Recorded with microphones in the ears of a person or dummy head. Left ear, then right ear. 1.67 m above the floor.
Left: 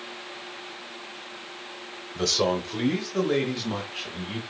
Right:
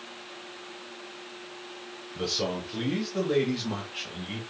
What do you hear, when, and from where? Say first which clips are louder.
2.1 s a man speaking: left 6 dB; 60° left (ahead or behind), 1.3 m; by 4.4 s 5° right (ahead or behind), 1.8 m